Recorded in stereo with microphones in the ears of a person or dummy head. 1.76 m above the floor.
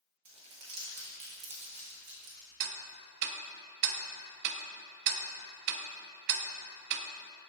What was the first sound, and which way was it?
Crumpling, 30° right (ahead or behind).